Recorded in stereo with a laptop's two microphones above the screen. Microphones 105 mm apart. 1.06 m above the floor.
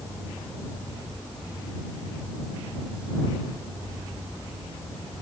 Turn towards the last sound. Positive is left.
No sound to turn to.